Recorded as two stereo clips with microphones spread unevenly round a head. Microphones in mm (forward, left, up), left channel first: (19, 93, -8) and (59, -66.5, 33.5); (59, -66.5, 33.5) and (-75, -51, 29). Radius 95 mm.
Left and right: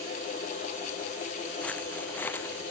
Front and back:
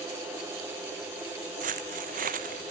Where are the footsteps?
170° right; by 2.7 s 175° right.